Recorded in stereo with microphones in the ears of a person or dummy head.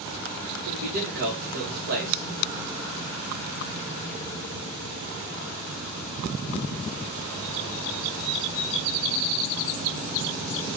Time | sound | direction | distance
0.7 | a man speaking | 50° right (ahead or behind) | 1.8 m